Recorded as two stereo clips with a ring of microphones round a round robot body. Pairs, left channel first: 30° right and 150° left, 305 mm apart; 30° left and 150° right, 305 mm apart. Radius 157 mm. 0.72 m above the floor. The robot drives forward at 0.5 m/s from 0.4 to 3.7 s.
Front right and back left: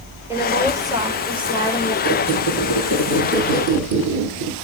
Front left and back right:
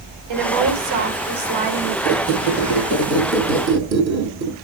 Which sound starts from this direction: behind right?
A woman speaking, at 0.3 s.